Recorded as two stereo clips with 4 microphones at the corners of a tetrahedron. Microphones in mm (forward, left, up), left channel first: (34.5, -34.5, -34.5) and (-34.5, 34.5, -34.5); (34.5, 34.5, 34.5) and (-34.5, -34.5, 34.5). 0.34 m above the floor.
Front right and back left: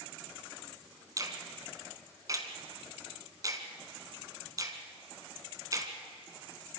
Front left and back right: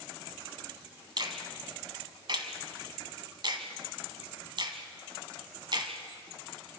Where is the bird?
No bird in this recording.